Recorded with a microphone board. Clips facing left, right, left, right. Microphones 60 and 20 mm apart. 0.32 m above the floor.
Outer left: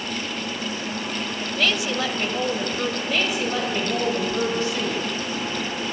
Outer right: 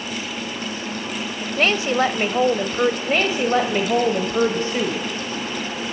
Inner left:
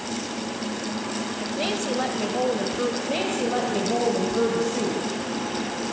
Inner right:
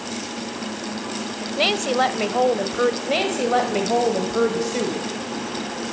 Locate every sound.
1.6 s a woman speaking: 35° right (ahead or behind), 1.3 m
3.1 s a woman speaking: 35° right (ahead or behind), 1.9 m